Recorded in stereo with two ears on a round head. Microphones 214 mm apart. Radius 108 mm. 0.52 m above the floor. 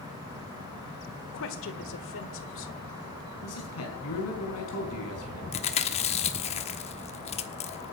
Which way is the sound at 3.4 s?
65° left (ahead or behind).